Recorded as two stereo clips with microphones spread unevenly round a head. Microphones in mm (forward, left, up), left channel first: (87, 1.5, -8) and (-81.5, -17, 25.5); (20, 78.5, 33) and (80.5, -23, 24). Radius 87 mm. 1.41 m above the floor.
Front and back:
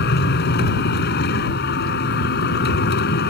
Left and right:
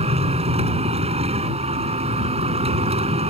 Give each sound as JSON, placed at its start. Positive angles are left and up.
{"t": 0.0, "sound": "a machine running", "azimuth_deg": -25}